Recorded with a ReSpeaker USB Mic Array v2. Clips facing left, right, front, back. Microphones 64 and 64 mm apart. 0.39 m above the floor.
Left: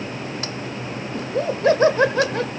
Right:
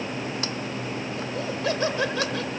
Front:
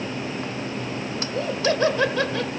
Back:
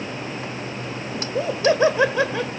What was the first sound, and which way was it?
Laughter, 115° left.